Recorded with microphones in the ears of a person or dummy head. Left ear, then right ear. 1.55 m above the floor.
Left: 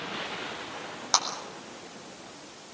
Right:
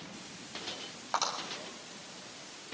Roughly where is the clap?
Left.